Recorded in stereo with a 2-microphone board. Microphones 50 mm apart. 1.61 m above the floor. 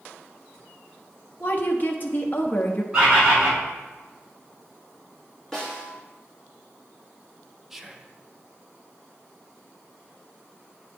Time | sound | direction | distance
1.4 | a woman speaking | 40° left (ahead or behind) | 0.8 m
2.9 | a bird | 20° right (ahead or behind) | 2 m
5.5 | a snare drum | 10° left (ahead or behind) | 2.0 m
7.7 | whispering | 5° right (ahead or behind) | 0.6 m